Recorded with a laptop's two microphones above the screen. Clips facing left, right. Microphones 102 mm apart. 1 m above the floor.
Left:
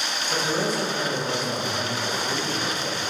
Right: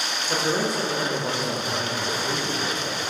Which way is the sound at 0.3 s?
65° right (ahead or behind).